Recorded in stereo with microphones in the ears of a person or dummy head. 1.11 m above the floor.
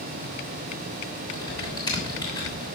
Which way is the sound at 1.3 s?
20° left (ahead or behind).